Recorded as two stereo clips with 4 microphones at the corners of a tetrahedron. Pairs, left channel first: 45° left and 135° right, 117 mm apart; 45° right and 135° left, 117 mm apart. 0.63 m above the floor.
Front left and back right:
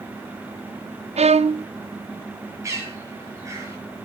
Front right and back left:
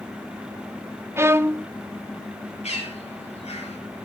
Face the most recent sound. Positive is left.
turn(degrees=-70)